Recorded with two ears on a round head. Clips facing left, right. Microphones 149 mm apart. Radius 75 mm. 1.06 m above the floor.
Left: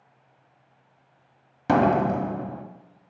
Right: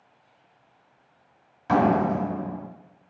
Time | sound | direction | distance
1.7 | a door slam | 60° left (ahead or behind) | 1.5 m